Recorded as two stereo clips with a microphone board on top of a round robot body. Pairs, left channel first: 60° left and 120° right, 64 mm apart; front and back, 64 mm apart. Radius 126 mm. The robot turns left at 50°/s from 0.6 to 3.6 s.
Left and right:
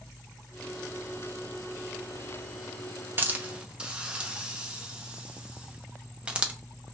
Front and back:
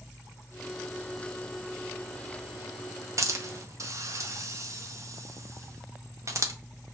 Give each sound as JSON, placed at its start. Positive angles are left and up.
{"t": 3.2, "sound": "a hiss", "azimuth_deg": -170, "distance_m": 0.7}